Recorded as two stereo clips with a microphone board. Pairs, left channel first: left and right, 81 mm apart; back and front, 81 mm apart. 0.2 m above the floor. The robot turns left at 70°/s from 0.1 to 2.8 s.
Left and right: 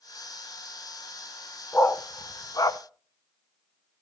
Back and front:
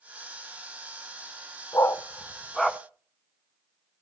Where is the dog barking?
155° left, 0.6 m; by 2.8 s 80° left, 0.6 m.